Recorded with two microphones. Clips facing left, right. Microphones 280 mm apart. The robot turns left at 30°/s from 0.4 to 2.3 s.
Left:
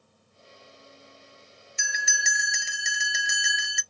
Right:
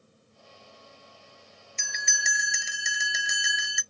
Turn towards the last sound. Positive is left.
turn(degrees=0)  # may be behind; listen again after turning